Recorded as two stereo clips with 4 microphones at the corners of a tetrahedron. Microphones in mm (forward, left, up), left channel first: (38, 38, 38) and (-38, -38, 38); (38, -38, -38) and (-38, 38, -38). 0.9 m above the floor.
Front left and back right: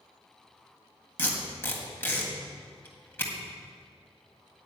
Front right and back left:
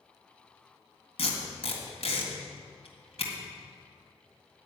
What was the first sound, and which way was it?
Tape being pulled, 25° right.